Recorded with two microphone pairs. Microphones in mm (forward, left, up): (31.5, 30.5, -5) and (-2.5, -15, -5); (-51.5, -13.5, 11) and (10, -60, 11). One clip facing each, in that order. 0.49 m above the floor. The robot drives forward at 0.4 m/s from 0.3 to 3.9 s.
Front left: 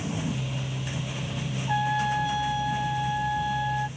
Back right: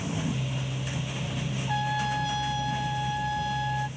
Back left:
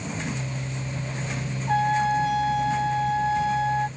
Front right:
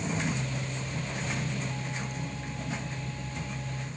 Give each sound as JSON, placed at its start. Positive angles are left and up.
{"t": 1.7, "sound": "a trumpet", "azimuth_deg": 130}